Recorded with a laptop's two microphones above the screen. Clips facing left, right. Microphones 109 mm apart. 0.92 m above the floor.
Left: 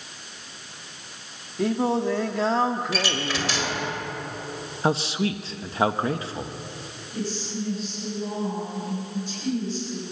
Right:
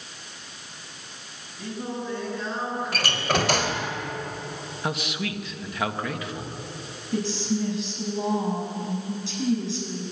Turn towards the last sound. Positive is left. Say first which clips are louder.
# right 5 dB
turn(degrees=-85)